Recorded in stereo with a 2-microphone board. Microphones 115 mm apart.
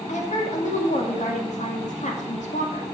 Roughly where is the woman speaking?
Left.